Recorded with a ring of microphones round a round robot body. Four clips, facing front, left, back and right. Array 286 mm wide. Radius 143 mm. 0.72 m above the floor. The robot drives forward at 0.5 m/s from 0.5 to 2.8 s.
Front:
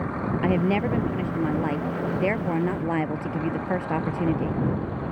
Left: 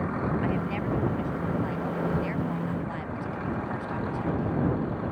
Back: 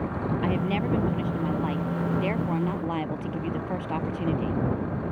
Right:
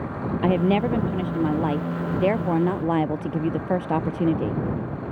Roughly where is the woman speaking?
Right.